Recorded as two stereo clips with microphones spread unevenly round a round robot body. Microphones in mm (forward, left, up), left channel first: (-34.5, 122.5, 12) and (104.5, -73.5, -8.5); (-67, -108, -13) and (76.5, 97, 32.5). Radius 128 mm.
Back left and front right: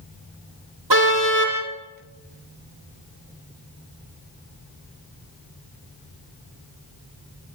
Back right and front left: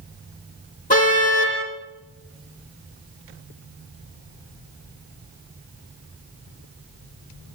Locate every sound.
0.9 s a car horn: 65° right, 9 m